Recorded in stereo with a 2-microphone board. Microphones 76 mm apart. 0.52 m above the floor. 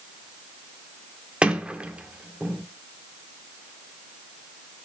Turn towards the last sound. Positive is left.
turn(degrees=-15)  # may be behind; listen again after turning